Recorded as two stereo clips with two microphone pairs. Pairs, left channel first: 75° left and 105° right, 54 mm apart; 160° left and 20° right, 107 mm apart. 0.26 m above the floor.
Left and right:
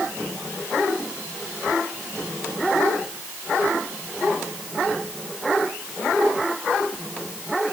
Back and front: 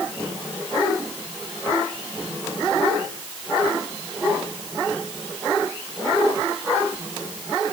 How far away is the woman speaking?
I don't hear a woman speaking.